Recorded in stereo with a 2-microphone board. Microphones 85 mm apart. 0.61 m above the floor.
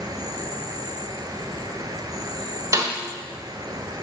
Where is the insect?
50° right (ahead or behind), 0.8 m.